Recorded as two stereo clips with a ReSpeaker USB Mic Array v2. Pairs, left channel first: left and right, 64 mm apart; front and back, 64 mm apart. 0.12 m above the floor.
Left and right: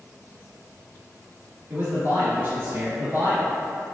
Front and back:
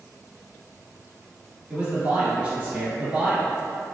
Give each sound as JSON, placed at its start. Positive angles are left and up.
{"t": 1.7, "sound": "a man speaking", "azimuth_deg": -115, "distance_m": 1.5}